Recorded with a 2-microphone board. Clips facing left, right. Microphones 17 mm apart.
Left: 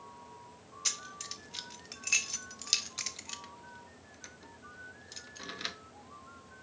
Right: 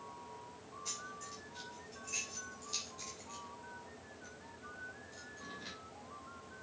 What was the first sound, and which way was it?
Keys jangling, 60° left (ahead or behind).